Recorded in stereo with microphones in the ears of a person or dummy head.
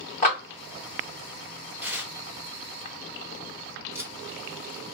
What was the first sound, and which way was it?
A clap, 40° left (ahead or behind).